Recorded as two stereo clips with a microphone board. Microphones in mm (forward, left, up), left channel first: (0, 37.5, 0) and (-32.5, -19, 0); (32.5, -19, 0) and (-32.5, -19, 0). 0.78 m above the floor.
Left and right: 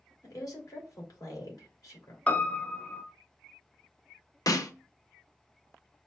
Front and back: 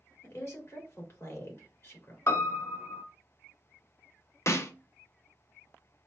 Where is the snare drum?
40° left, 0.6 m.